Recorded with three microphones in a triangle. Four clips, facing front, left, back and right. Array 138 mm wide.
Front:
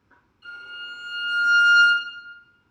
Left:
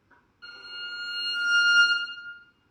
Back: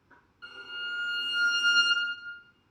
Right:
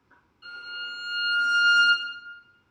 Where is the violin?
165° left, 1.2 m.